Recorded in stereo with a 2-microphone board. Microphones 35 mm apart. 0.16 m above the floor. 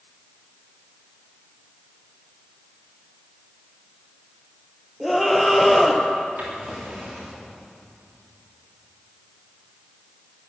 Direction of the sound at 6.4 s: 60° right (ahead or behind).